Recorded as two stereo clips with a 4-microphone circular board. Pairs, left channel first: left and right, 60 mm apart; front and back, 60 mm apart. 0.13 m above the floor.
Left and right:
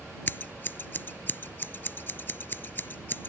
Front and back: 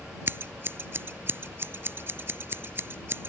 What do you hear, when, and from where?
0.3 s scissors: 135° left